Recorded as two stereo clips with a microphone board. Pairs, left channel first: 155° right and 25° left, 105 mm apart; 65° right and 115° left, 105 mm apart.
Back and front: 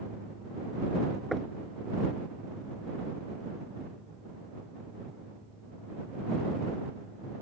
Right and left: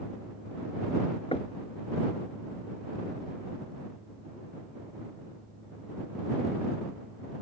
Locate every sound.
1.3 s knocking: 70° right